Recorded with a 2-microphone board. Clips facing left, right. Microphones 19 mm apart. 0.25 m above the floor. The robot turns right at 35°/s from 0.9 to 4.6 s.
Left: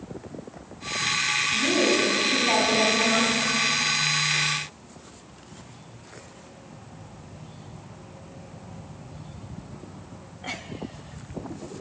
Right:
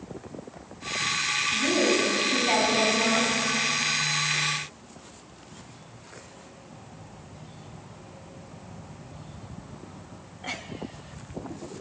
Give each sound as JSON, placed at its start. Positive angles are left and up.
{"t": 1.5, "sound": "a woman speaking", "azimuth_deg": 140, "distance_m": 2.0}